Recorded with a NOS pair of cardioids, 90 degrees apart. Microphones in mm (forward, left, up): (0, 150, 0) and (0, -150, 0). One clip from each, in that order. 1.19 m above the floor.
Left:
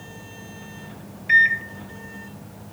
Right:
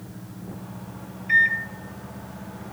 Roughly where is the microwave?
Ahead left.